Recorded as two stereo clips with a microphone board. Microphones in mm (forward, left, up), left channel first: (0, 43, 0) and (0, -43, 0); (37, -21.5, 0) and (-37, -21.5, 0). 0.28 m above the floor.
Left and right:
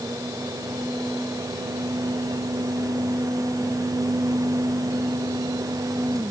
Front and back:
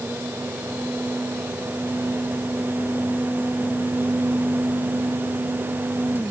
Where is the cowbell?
I don't hear a cowbell.